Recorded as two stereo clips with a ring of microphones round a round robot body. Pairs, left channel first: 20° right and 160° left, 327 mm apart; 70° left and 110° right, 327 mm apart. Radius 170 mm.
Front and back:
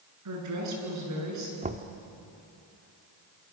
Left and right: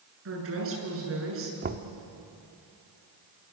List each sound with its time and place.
0.2 s a woman speaking: 165° right, 8.5 m
1.6 s knocking: 150° right, 1.3 m